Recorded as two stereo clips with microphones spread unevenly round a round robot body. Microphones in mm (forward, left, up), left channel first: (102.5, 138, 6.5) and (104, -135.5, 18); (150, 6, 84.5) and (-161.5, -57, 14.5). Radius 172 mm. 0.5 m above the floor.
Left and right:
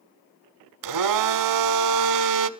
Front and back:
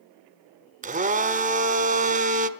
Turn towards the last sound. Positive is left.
turn(degrees=-100)